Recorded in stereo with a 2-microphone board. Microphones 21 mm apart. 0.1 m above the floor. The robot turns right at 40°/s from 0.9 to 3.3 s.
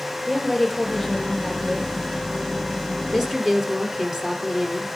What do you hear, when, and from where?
0.3 s a woman speaking: 170° left, 4 m; by 2.2 s 140° right, 4 m
3.1 s a woman speaking: 15° right (ahead or behind), 2 m; by 4.9 s 20° right (ahead or behind), 2 m